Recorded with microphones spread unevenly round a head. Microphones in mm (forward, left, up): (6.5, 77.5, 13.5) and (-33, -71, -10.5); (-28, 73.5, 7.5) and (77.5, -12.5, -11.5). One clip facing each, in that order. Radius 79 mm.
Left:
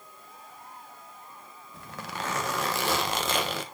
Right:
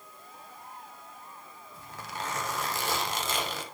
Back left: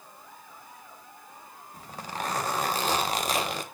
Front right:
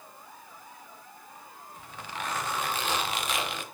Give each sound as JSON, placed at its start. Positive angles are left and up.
{"t": 1.7, "sound": "a zipper", "azimuth_deg": 90, "distance_m": 1.0}